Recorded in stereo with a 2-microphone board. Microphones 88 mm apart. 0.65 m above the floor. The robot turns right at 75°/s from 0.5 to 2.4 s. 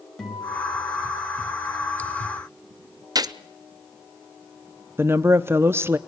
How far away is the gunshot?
About 0.6 m.